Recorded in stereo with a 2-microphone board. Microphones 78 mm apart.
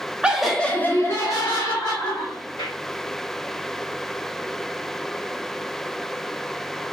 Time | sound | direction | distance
0.2 | laughter | 15° right (ahead or behind) | 0.6 m